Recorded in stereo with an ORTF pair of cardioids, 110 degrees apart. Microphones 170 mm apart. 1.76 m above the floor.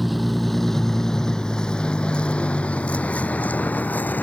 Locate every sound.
0.0 s a vehicle: straight ahead; by 4.2 s 10° left